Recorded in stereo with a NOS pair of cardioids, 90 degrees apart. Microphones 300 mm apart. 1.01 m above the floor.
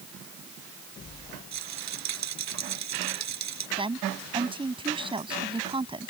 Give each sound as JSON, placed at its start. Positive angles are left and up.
{"t": 1.5, "sound": "a rattle", "azimuth_deg": -65}
{"t": 3.8, "sound": "a woman speaking", "azimuth_deg": -15}